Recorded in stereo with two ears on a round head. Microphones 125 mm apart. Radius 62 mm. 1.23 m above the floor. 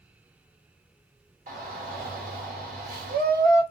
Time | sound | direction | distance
1.5 | a shout | 60° right (ahead or behind) | 1.5 m